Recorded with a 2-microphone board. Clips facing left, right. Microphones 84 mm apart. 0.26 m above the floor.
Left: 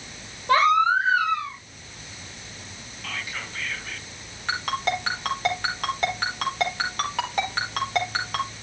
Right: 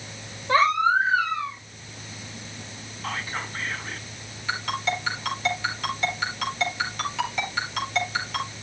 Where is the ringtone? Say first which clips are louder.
Left 2 dB; 55° left (ahead or behind), 4 m.